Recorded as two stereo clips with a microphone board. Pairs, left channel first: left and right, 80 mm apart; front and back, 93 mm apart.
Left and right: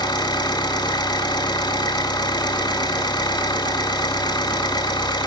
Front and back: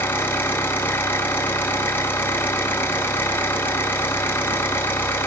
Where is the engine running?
70° left, 4.5 m.